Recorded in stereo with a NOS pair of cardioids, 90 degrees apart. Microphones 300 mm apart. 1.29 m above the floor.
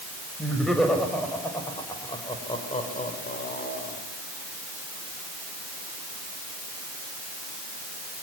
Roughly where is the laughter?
Ahead.